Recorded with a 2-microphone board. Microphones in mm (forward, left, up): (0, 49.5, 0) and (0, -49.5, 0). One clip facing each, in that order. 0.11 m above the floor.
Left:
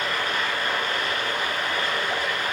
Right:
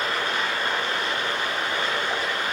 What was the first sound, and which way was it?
Running water, 20° right (ahead or behind).